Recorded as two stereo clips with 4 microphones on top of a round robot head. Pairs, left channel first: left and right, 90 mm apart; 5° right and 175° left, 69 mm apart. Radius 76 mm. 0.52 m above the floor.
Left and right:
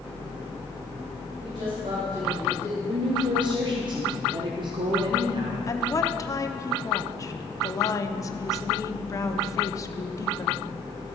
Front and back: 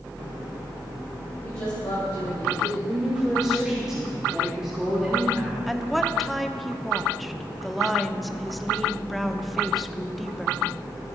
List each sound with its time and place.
1.4 s a woman speaking: 55° right, 3 m; by 2.8 s 35° right, 3.5 m
2.9 s a woman speaking: 105° right, 1.2 m
5.7 s a woman speaking: 85° left, 0.9 m